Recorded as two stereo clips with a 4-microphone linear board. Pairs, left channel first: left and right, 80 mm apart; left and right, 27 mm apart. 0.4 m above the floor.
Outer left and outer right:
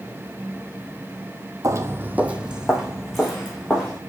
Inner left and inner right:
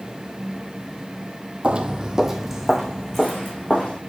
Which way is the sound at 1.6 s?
45° right (ahead or behind).